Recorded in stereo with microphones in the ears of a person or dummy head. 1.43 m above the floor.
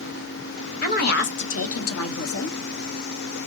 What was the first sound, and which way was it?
A woman speaking, 35° left (ahead or behind).